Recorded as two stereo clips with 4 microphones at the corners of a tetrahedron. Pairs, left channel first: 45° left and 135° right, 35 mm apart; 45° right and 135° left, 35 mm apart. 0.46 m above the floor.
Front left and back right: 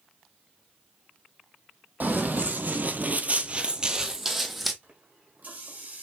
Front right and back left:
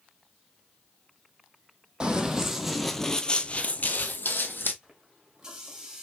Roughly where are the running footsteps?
Behind.